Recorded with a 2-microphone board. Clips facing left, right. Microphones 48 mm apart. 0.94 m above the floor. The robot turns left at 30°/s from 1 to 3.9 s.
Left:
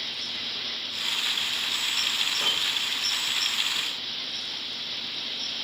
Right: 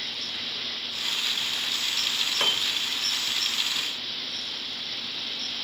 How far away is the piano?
About 3 m.